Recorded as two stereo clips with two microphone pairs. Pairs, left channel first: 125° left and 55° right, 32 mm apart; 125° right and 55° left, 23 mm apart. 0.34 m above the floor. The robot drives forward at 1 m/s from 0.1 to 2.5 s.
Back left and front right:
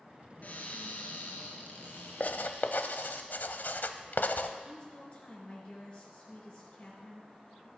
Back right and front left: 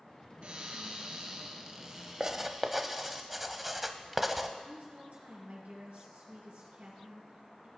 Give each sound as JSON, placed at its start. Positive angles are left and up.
{"t": 0.4, "sound": "a cupboard door", "azimuth_deg": 85, "distance_m": 2.5}
{"t": 2.2, "sound": "writing", "azimuth_deg": 105, "distance_m": 0.5}
{"t": 4.6, "sound": "a woman speaking", "azimuth_deg": 75, "distance_m": 5.0}